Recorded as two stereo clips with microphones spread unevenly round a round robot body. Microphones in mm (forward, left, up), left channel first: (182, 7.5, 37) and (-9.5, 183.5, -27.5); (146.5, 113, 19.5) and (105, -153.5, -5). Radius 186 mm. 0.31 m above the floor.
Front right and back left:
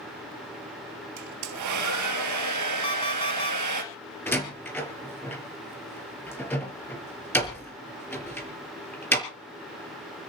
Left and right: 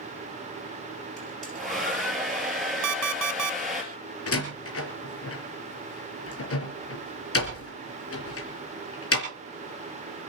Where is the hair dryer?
170° left, 2 m.